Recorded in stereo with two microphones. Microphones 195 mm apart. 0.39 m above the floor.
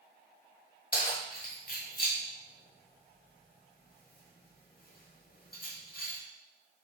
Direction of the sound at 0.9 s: 55° left (ahead or behind).